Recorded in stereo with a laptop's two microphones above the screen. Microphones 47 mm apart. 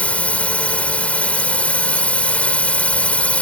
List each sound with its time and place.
0.0 s a drone: 30° left (ahead or behind)